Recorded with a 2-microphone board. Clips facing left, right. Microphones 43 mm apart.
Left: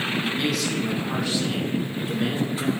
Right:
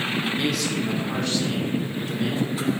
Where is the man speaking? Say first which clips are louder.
Even; 5° right (ahead or behind), 1.6 m; by 2.7 s 25° left (ahead or behind), 2.5 m.